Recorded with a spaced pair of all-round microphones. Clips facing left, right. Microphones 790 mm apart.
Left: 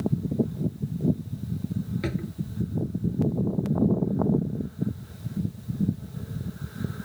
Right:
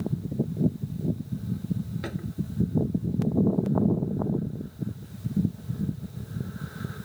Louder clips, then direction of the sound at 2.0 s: Left 4 dB; 55° left (ahead or behind).